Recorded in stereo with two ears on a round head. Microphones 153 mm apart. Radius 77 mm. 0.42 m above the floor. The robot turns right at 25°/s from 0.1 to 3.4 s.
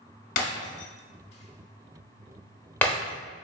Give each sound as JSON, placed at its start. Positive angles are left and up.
{"t": 0.4, "sound": "breaking glass", "side_deg": 55, "distance_m": 0.9}